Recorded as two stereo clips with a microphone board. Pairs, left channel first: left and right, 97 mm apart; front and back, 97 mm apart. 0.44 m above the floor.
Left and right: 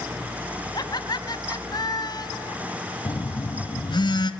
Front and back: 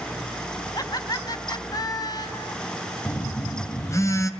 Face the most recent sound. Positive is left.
turn(degrees=55)